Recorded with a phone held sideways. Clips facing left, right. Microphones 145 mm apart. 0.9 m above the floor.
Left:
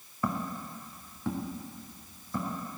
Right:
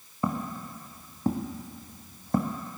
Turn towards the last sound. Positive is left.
turn(degrees=-60)  # may be behind; listen again after turning